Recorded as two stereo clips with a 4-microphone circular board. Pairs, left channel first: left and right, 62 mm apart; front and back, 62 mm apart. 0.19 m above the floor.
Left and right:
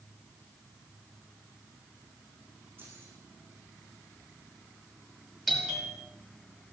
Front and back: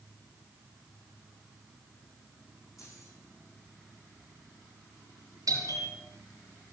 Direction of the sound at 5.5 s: Straight behind.